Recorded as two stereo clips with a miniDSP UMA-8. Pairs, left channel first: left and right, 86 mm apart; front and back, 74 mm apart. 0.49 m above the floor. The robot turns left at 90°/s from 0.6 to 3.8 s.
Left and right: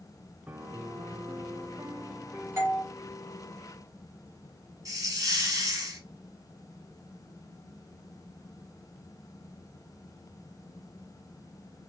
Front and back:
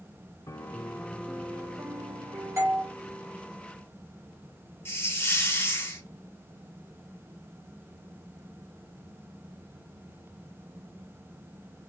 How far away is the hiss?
About 1.9 m.